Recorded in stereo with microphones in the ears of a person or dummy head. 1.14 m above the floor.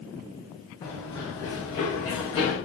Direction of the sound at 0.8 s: 25° left (ahead or behind).